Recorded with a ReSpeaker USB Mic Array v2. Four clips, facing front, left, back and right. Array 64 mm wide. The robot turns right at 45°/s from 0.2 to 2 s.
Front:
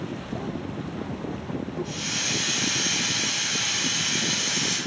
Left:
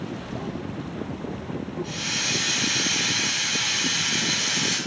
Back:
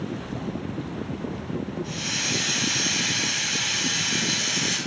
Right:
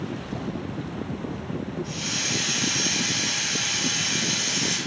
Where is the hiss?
80° left, 1.0 m; by 4.8 s 85° left, 1.0 m.